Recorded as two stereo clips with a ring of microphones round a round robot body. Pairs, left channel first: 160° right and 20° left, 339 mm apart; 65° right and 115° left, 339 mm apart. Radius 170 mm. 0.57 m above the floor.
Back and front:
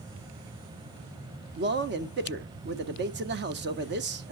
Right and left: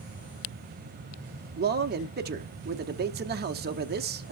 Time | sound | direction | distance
1.6 | a man speaking | 65° left | 0.9 m